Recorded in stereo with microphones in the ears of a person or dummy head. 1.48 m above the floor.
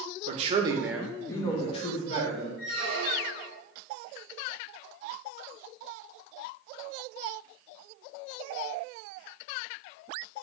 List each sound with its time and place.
0.3 s a man speaking: 45° right (ahead or behind), 0.5 m; by 2.5 s 45° left (ahead or behind), 1.0 m
2.6 s a squeak: 75° left (ahead or behind), 2.0 m